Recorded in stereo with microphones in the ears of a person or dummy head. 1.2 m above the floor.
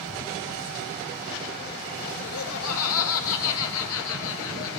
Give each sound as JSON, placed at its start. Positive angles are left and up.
{"t": 2.2, "sound": "laughter", "side_deg": 70, "distance_m": 0.6}